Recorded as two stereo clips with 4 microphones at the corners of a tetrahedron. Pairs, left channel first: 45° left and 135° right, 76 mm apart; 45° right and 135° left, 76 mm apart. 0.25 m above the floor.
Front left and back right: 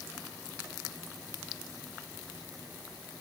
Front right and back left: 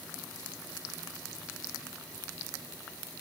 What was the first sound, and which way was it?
Only background noise.